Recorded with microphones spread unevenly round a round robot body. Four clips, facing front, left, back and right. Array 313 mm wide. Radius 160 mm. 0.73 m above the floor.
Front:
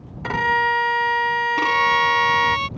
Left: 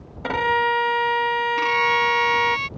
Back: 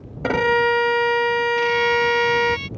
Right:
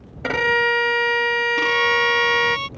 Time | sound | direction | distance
0.2 | a violin | 170° right | ?
1.6 | a violin | 20° right | ?